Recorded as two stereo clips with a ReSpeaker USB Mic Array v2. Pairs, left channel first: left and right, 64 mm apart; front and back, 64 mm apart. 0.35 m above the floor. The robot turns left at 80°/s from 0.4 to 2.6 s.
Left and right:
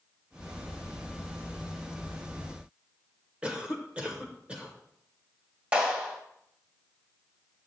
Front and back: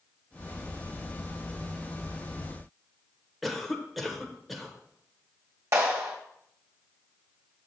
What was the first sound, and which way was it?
A cough, 90° right.